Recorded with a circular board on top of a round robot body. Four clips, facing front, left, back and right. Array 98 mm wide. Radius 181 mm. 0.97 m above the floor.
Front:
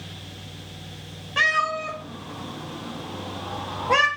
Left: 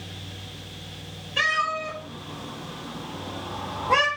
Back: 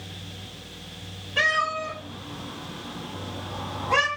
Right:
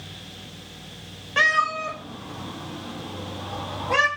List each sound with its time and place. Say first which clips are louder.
1.4 s a cat meowing: right 3 dB, front 2 dB; 70° right, 0.9 m; by 4.1 s 20° left, 1.1 m